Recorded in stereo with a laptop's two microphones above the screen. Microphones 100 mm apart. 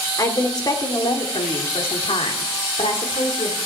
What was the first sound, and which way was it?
A woman speaking, 35° left (ahead or behind).